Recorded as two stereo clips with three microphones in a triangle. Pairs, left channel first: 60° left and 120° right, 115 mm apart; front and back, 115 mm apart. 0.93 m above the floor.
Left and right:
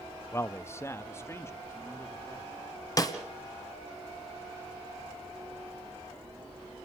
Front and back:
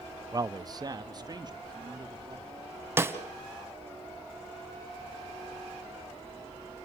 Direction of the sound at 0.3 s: 125° left.